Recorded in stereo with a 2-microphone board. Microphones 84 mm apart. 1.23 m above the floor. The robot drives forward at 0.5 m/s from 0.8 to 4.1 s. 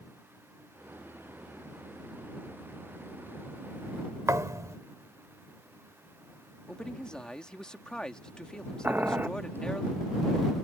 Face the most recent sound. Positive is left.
turn(degrees=-25)  # may be behind; listen again after turning